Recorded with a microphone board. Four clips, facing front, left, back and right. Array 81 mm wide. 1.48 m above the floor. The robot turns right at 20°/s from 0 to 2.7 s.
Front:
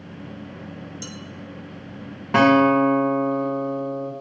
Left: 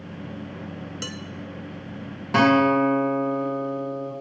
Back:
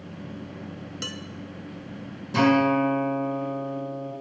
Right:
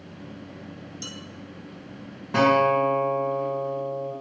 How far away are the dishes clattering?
About 1.1 m.